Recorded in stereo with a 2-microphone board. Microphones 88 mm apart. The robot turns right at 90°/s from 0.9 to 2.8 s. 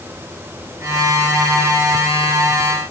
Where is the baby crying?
I don't hear a baby crying.